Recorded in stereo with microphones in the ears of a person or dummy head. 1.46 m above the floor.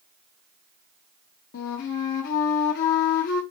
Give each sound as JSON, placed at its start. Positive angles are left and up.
{"t": 1.5, "sound": "a flute", "side_deg": 60, "distance_m": 1.1}